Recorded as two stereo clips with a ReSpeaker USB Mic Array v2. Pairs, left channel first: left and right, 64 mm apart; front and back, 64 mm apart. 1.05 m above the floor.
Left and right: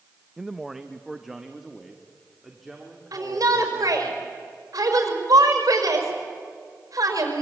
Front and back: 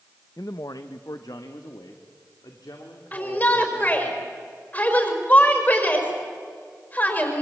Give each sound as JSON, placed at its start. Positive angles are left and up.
{"t": 0.4, "sound": "a man speaking", "azimuth_deg": -5, "distance_m": 0.7}
{"t": 3.1, "sound": "a shout", "azimuth_deg": -60, "distance_m": 5.0}